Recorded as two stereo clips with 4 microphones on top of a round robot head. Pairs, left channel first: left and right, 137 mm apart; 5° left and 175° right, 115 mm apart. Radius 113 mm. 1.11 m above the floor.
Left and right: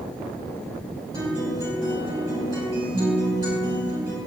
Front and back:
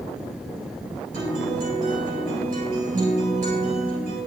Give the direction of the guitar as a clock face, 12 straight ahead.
5 o'clock.